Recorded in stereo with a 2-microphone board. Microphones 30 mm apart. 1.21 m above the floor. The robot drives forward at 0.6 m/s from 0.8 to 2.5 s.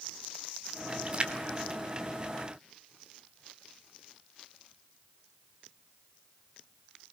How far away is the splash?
About 1.7 m.